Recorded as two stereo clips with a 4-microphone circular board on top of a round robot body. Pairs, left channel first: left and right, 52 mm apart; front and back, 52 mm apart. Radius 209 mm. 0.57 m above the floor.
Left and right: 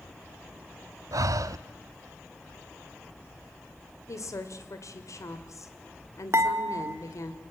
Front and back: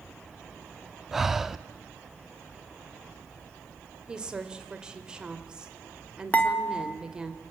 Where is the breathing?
95° right, 0.6 m.